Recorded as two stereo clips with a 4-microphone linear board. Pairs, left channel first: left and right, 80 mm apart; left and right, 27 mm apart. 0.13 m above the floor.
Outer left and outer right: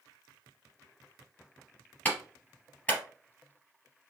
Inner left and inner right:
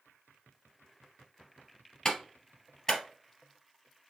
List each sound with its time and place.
2.0 s a clap: 25° left (ahead or behind), 2.5 m